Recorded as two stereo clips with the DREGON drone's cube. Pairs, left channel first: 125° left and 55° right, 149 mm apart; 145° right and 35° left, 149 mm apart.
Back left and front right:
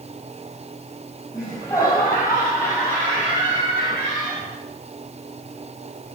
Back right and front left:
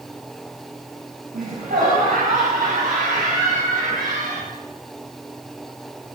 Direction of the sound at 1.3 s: 55° left.